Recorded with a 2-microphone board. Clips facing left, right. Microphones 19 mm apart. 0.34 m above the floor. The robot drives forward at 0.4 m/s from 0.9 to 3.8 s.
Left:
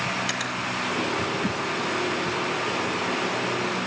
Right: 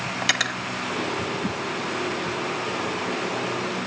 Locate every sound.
0.2 s cutlery clinking: 30° right (ahead or behind), 0.8 m